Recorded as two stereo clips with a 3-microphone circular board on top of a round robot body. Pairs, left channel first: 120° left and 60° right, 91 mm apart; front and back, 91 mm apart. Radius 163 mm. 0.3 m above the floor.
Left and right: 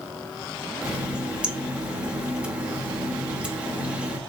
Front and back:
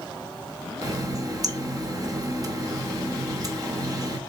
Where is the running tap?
135° right, 1.1 m.